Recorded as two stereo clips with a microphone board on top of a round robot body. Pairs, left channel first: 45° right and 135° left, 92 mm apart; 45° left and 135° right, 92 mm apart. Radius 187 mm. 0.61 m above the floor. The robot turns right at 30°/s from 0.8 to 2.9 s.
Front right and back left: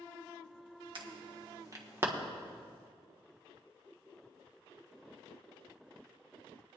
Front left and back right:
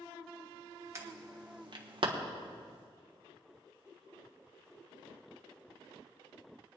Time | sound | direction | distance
0.9 | an alarm | 165° left | 1.5 m